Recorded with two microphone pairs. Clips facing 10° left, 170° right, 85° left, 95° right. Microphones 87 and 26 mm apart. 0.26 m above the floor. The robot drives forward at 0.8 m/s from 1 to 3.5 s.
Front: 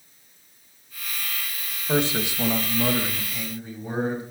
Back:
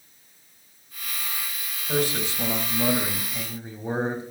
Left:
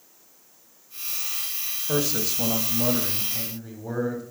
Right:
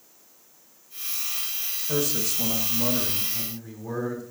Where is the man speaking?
40° left, 1.3 m; by 4.2 s 150° left, 1.4 m.